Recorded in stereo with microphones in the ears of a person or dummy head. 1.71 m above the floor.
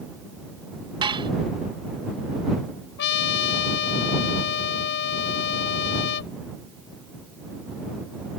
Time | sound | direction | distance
1.0 | dishes clattering | 20° right (ahead or behind) | ?
3.0 | a trumpet | 60° left (ahead or behind) | ?